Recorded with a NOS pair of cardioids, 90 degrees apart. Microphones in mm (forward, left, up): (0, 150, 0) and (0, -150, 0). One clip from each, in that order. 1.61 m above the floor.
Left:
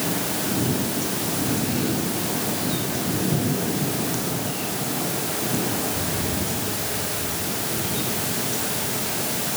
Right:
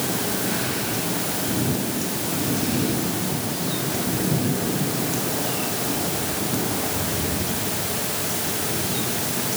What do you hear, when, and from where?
Only background noise.